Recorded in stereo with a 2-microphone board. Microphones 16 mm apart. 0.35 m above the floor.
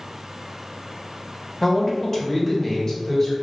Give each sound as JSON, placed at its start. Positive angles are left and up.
{"t": 1.6, "sound": "a man speaking", "side_deg": 25, "distance_m": 1.1}